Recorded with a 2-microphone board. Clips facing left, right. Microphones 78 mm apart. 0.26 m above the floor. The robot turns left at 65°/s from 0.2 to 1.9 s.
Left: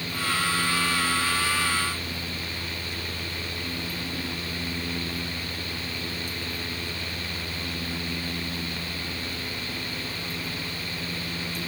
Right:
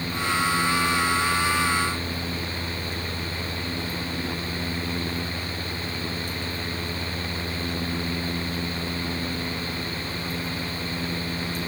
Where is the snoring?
No snoring in this recording.